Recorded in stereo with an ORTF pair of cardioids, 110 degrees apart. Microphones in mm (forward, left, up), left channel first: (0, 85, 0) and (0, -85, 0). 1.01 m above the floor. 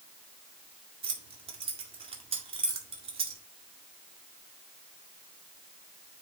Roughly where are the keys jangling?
Ahead right.